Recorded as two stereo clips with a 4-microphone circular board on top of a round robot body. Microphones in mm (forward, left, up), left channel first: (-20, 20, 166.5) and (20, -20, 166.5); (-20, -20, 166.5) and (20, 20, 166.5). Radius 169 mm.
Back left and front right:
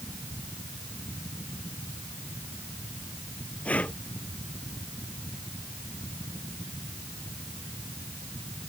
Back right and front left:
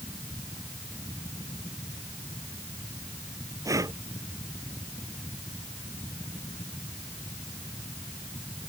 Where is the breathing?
70° left.